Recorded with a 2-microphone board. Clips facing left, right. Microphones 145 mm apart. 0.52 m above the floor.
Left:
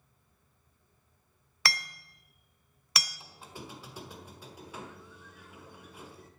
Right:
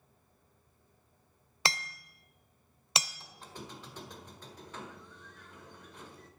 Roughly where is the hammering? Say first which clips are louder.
Right 1 dB; right.